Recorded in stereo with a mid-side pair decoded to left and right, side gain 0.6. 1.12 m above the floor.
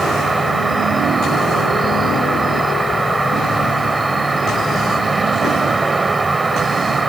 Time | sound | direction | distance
0.0 | an insect | 15° right | ?